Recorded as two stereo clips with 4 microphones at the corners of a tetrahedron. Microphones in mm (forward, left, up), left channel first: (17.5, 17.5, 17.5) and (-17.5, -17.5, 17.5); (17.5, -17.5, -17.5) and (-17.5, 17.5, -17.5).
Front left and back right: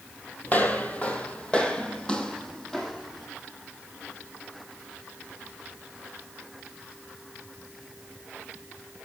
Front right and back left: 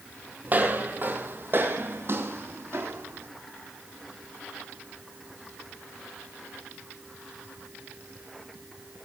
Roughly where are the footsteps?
Left.